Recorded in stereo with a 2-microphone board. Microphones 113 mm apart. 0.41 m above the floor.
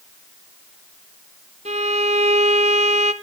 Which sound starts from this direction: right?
A violin, at 1.6 s.